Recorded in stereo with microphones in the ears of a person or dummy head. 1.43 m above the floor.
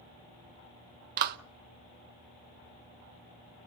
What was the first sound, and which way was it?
A clap, 50° right (ahead or behind).